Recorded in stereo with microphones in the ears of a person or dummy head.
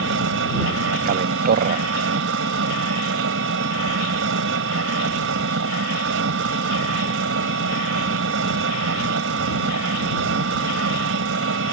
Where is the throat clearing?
I don't hear throat clearing.